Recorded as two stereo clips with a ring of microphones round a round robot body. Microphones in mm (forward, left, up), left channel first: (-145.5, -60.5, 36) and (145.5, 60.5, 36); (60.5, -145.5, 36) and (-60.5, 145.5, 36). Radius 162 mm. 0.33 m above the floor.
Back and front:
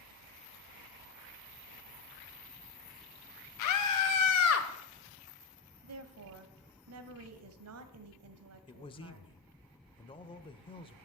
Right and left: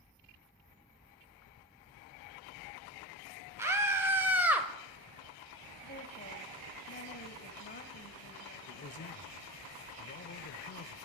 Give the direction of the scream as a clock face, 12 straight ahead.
6 o'clock.